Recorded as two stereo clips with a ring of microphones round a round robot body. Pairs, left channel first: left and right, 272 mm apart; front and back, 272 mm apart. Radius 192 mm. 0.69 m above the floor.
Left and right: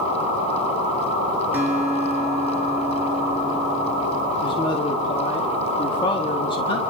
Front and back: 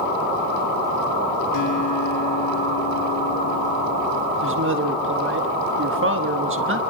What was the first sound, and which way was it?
A guitar, 5° right.